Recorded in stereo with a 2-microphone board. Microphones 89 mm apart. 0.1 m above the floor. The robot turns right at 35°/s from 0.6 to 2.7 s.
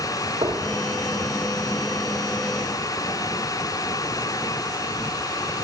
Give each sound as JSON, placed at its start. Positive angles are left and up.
{"t": 0.4, "sound": "knocking", "side_deg": -75, "distance_m": 3.5}